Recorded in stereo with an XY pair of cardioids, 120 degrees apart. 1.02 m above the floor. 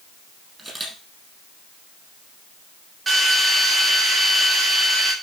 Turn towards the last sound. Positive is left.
turn(degrees=-25)